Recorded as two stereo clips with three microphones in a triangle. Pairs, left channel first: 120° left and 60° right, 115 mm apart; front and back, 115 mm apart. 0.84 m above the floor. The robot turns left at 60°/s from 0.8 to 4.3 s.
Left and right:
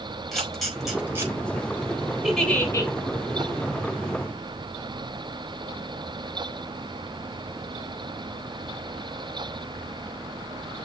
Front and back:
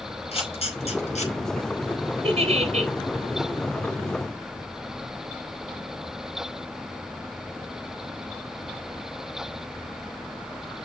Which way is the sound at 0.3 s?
30° left.